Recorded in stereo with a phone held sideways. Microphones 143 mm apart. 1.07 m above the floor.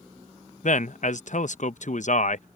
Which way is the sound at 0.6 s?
60° left (ahead or behind).